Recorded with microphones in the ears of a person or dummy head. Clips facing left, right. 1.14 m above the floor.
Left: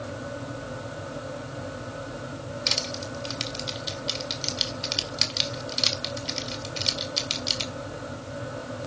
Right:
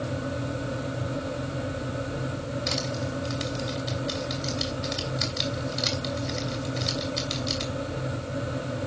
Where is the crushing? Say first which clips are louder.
Right 4 dB; 40° left (ahead or behind), 2.5 m.